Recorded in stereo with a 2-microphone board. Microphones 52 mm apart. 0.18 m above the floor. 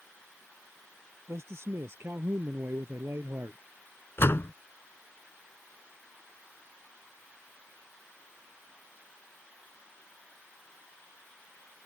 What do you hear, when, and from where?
1.3 s a man speaking: 60° right (ahead or behind); by 3.6 s 55° right (ahead or behind)
4.2 s a door slam: 50° left (ahead or behind)